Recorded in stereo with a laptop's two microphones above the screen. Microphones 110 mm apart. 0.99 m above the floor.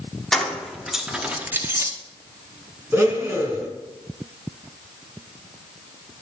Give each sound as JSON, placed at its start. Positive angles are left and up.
{"t": 0.3, "sound": "keys jangling", "side_deg": 5, "distance_m": 1.7}
{"t": 2.9, "sound": "a blender", "side_deg": -20, "distance_m": 2.5}